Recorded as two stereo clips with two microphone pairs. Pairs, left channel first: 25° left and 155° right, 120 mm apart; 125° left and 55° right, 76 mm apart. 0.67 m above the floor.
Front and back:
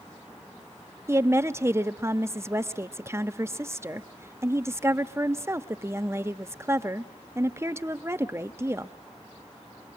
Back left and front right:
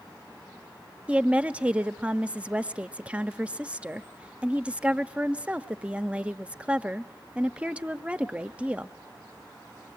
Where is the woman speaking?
115° right, 0.7 m.